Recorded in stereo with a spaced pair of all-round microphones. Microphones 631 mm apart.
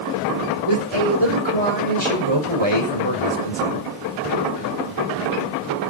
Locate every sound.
0.7 s a man speaking: 45° right (ahead or behind), 5.5 m